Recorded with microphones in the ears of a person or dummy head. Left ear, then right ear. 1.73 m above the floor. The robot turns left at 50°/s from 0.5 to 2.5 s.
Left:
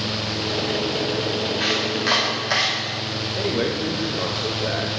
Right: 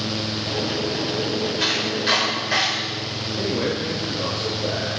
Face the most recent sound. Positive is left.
turn(degrees=45)  # may be behind; listen again after turning